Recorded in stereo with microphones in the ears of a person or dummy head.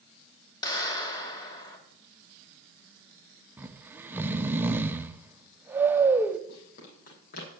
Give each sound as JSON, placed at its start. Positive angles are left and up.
{"t": 0.6, "sound": "a clap", "side_deg": 25, "distance_m": 2.0}
{"t": 3.6, "sound": "snoring", "side_deg": -10, "distance_m": 0.5}
{"t": 6.5, "sound": "running footsteps", "side_deg": 55, "distance_m": 4.5}